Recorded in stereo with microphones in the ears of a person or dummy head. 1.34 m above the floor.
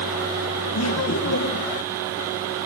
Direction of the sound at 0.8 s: 65° left (ahead or behind).